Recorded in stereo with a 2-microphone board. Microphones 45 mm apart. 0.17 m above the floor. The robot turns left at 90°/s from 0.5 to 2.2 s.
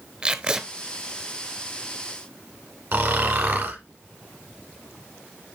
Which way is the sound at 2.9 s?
50° right (ahead or behind).